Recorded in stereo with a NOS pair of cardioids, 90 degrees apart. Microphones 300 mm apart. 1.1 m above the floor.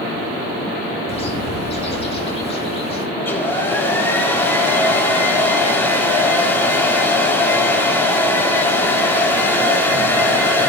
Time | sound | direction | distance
1.1 | a bird | 20° left | 3 m
3.2 | a hair dryer | 10° left | 4 m